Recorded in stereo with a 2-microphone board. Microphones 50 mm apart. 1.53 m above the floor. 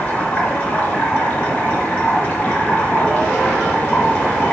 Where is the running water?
25° left (ahead or behind), 2.5 m.